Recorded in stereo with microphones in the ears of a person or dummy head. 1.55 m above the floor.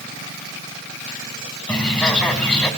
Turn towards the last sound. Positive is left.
turn(degrees=5)  # may be behind; listen again after turning